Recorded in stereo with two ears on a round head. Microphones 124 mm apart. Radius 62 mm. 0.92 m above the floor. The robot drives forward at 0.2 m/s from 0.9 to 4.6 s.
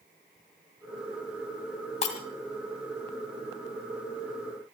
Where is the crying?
No crying in this recording.